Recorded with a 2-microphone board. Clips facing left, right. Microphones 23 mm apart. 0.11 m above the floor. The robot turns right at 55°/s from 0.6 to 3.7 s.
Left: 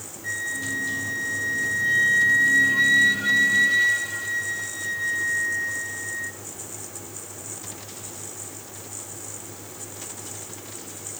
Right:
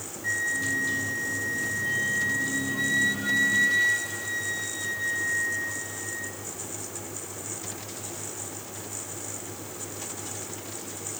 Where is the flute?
15° right, 1.1 m; by 6.4 s 160° left, 1.1 m.